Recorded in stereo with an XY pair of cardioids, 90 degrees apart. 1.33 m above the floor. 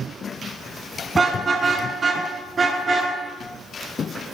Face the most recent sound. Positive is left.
turn(degrees=-30)